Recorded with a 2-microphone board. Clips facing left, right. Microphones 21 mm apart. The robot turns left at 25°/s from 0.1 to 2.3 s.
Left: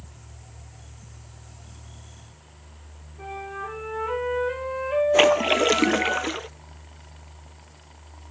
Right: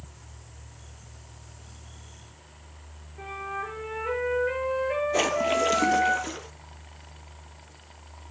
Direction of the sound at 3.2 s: 60° right (ahead or behind).